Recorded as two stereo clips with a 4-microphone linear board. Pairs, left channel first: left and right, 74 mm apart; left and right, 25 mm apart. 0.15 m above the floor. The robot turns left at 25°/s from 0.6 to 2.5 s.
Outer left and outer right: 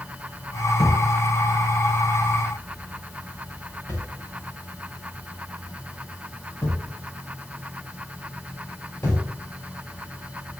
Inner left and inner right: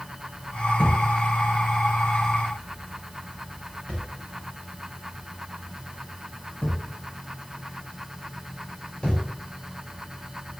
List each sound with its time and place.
0.8 s a thud: 75° left (ahead or behind), 5.5 m; by 10.6 s 30° left (ahead or behind), 5.5 m